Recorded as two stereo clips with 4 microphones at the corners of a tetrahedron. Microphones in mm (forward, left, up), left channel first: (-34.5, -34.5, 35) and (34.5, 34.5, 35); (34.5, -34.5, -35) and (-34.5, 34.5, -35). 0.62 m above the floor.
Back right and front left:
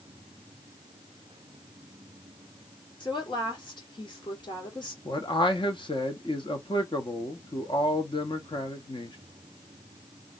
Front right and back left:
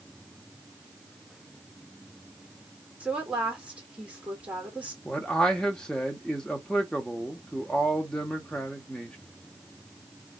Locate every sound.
3.0 s a woman speaking: 150° right, 1.9 m
5.0 s a man speaking: 125° right, 1.0 m